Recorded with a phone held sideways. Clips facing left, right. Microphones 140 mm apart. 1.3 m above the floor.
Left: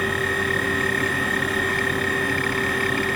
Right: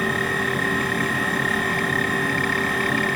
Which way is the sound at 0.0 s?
30° right (ahead or behind).